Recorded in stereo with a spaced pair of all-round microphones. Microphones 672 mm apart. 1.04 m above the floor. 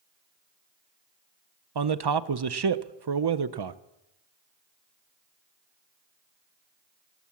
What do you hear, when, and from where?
1.8 s a man speaking: 40° right (ahead or behind), 0.5 m